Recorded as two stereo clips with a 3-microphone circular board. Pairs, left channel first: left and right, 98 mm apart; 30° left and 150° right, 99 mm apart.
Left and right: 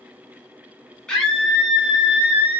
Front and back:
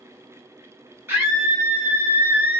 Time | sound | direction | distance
1.1 | a scream | 165° left | 1.4 m